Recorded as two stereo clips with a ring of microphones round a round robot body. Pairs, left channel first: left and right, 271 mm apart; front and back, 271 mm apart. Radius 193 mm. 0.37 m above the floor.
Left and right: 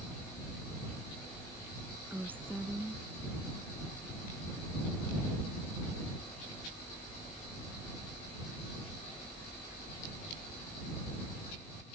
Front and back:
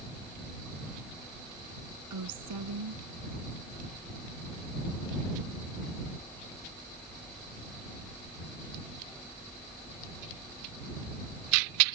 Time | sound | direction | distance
2.1 | a woman speaking | 175° right | ?